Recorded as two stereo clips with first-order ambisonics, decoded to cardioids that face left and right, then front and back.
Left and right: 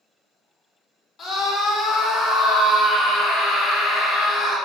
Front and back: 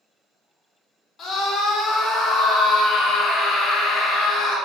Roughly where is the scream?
Ahead left.